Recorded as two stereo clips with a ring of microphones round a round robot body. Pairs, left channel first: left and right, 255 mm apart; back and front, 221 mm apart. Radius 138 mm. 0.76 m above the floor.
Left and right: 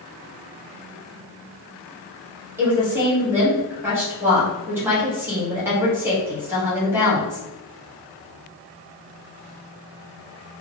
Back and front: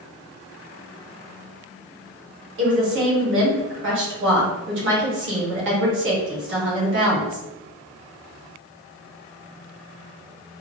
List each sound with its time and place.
2.6 s a woman speaking: 10° right, 1.6 m